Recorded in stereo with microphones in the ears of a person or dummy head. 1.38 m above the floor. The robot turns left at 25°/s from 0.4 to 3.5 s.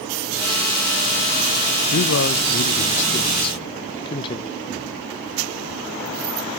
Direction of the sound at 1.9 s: 70° left.